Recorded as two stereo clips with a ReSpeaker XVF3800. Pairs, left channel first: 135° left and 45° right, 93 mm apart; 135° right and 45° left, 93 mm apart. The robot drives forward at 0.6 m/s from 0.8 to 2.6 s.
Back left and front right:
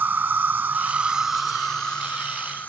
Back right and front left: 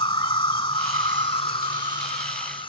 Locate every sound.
0.0 s an insect: 115° right; by 2.7 s 155° right